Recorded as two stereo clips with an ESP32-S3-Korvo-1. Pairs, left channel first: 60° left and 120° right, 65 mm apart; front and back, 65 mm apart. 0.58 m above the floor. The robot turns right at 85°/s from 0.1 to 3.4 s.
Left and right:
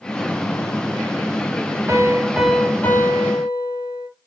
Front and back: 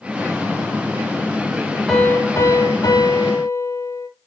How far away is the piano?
About 5 m.